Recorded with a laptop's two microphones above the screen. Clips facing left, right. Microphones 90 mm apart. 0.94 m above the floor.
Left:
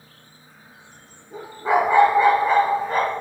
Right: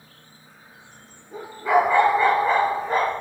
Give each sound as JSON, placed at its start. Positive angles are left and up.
{"t": 1.6, "sound": "a dog barking", "side_deg": 30, "distance_m": 2.5}